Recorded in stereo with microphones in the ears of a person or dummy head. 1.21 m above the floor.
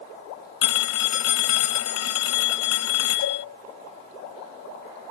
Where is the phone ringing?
75° left (ahead or behind).